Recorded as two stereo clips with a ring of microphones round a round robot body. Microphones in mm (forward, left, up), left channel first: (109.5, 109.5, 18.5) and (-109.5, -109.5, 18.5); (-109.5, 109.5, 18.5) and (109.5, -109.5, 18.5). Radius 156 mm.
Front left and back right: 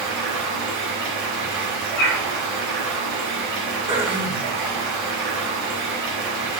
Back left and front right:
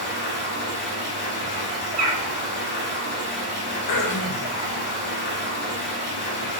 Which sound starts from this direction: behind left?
Throat clearing, at 3.9 s.